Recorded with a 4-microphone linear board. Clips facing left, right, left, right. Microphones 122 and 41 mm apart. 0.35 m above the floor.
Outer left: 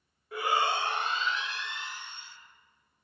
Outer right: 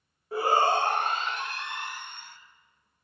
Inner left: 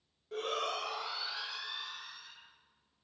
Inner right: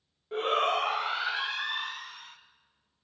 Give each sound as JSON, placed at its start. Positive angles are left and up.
{"t": 0.3, "sound": "a shout", "side_deg": -30, "distance_m": 1.0}